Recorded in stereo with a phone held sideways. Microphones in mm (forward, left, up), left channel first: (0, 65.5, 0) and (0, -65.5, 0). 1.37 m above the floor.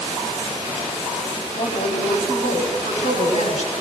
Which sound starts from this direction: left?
A woman speaking, at 1.6 s.